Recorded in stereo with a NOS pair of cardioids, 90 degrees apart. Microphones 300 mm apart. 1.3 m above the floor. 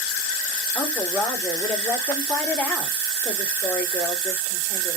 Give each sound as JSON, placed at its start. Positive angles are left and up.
{"t": 0.8, "sound": "a woman speaking", "azimuth_deg": 10, "distance_m": 3.0}